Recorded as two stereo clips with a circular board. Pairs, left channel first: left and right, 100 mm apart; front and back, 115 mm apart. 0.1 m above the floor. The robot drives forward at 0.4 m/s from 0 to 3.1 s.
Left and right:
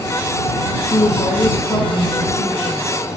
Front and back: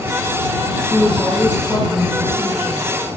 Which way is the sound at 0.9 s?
90° left.